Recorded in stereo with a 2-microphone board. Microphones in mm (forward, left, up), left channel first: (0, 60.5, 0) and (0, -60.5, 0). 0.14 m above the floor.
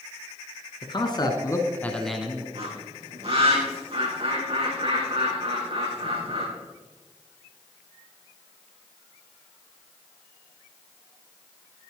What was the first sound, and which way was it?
A man speaking, 40° left (ahead or behind).